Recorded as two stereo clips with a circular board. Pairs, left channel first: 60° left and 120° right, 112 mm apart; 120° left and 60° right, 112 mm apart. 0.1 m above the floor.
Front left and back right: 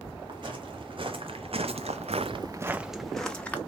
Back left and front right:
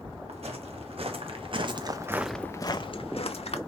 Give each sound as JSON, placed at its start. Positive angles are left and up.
{"t": 0.3, "sound": "footsteps", "azimuth_deg": -80, "distance_m": 2.0}